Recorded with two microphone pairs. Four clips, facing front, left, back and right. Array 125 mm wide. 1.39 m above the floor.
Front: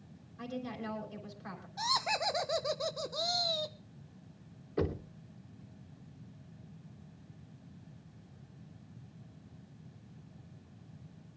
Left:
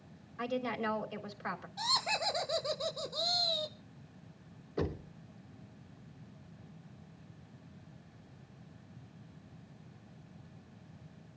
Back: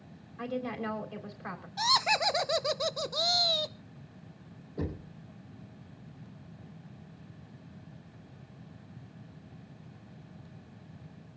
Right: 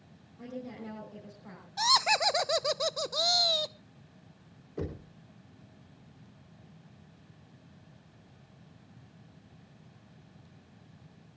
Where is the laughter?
115° right, 0.6 m.